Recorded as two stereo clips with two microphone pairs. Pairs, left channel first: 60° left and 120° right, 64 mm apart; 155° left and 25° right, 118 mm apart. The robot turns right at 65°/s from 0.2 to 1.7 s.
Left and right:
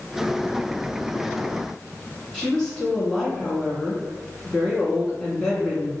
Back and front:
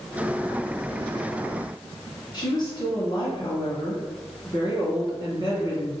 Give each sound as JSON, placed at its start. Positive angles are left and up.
{"t": 2.3, "sound": "a woman speaking", "azimuth_deg": 135, "distance_m": 1.9}